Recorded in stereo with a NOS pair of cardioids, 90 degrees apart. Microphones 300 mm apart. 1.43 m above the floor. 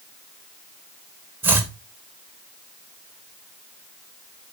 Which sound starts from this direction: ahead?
Chopping, at 1.4 s.